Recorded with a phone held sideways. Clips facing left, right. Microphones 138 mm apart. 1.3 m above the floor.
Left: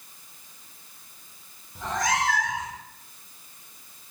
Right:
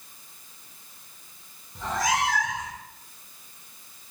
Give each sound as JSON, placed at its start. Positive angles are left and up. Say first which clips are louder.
{"t": 1.8, "sound": "a cat meowing", "louder": "right 1 dB", "side_deg": 5, "distance_m": 0.6}